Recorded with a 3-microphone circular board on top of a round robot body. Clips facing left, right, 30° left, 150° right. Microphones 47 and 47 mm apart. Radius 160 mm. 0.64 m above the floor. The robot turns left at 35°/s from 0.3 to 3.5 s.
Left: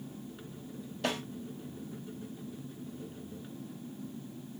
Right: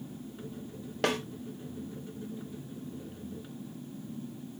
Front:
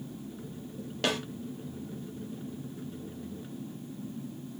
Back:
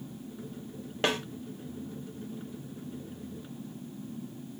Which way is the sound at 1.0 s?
95° right.